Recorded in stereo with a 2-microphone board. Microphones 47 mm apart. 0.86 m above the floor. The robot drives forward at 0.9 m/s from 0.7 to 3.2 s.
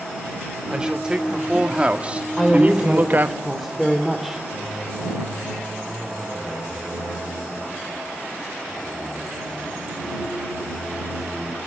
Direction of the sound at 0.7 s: 15° right (ahead or behind).